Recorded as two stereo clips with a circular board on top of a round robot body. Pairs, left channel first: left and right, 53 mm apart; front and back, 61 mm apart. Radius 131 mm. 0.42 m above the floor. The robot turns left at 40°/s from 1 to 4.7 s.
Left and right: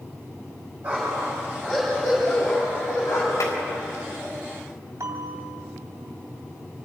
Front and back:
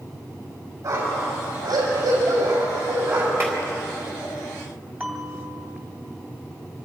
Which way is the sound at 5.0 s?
115° right.